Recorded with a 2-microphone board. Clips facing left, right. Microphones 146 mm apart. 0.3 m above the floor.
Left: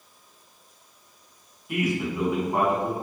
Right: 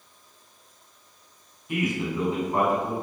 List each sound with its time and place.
1.7 s a man speaking: 5° left (ahead or behind), 1.9 m; by 2.9 s 25° left (ahead or behind), 1.9 m